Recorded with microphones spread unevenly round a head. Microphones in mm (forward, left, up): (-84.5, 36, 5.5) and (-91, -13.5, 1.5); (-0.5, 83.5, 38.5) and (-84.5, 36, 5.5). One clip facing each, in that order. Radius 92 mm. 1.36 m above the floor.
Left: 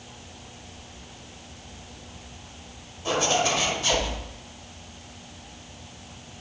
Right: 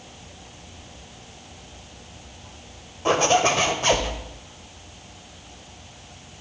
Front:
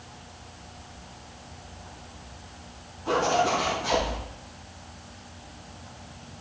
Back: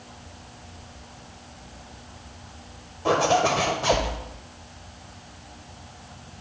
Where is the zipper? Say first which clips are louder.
Right 5 dB, back 3 dB; 135° right, 1.7 m.